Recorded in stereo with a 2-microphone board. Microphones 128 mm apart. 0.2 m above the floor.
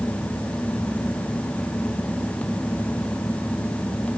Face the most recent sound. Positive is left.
No sound to turn to.